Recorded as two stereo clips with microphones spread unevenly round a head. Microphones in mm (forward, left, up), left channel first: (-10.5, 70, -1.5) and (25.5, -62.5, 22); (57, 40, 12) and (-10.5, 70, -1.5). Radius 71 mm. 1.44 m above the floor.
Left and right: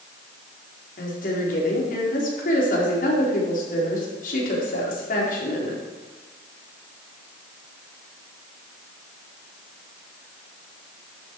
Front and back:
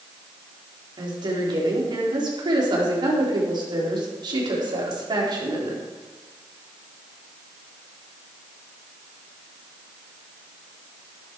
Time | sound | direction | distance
1.0 | a woman speaking | 140° left | 4.5 m